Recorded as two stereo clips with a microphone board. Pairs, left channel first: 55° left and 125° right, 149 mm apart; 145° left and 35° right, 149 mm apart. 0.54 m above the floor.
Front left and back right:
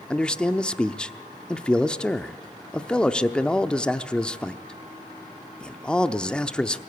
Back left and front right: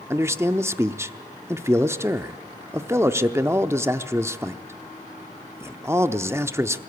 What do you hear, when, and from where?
0.1 s a man speaking: 15° right, 0.7 m